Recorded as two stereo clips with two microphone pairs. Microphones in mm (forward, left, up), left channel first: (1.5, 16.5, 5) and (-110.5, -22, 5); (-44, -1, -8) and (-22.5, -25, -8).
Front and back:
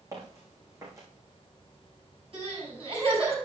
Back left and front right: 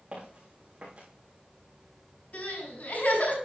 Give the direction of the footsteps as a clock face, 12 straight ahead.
3 o'clock.